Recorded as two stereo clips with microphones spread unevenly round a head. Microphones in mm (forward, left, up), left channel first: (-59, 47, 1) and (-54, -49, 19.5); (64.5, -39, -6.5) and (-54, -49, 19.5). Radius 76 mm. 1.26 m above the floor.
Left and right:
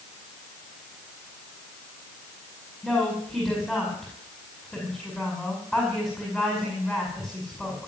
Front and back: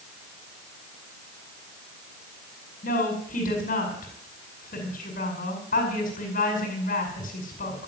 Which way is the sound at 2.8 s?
5° left.